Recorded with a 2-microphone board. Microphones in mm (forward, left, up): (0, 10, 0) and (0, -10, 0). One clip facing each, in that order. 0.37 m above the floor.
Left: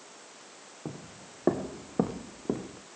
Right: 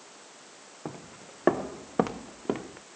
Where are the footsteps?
50° right (ahead or behind), 1.3 m.